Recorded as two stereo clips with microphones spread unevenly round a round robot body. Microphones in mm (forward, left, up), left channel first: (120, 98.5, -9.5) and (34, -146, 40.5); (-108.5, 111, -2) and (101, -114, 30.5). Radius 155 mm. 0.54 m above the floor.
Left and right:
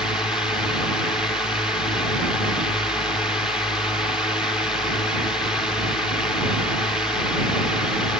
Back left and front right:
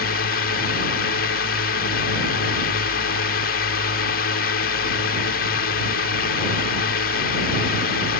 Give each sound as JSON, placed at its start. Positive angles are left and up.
{"t": 0.0, "sound": "a drone", "azimuth_deg": 150}